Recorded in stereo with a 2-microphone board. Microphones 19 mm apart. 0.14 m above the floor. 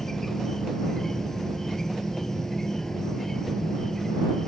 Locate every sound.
0.0 s an insect: 30° left (ahead or behind)